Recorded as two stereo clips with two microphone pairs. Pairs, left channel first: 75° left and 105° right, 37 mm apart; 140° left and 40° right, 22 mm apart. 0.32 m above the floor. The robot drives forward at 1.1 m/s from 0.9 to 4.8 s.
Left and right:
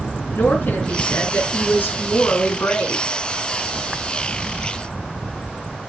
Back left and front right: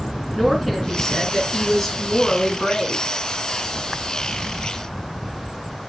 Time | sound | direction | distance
0.3 | a woman speaking | 50° left | 4.5 m